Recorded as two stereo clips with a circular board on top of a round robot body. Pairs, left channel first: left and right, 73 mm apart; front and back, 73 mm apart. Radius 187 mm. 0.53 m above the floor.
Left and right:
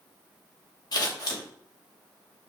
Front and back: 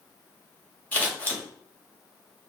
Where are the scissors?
65° left, 2.5 m.